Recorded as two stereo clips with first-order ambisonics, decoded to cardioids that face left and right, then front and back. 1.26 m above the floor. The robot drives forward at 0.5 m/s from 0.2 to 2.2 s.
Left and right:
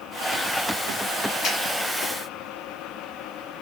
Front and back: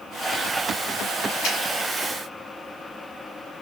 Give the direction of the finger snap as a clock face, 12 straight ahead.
10 o'clock.